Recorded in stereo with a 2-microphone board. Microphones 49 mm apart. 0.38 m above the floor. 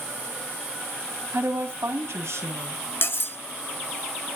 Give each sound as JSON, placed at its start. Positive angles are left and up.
{"t": 1.3, "sound": "a woman speaking", "side_deg": -55, "distance_m": 2.0}
{"t": 3.0, "sound": "cutlery clinking", "side_deg": 50, "distance_m": 0.9}